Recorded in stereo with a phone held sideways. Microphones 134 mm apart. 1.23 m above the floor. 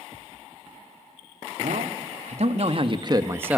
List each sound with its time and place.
1.6 s a man speaking: 70° right (ahead or behind), 3 m; by 3.6 s 5° right (ahead or behind), 1.6 m